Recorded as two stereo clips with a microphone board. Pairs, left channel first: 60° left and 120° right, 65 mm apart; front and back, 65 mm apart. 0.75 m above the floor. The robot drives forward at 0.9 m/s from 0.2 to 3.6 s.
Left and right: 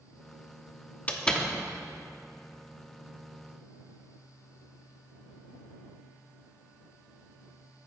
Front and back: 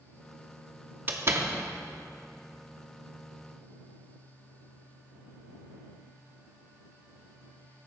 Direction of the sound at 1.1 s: 125° left.